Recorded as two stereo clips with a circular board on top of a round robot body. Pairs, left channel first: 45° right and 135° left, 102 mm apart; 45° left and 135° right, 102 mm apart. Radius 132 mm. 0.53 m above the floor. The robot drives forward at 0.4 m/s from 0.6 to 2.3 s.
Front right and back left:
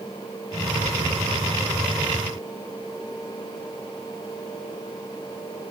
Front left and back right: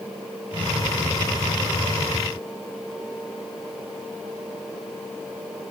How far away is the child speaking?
I don't hear a child speaking.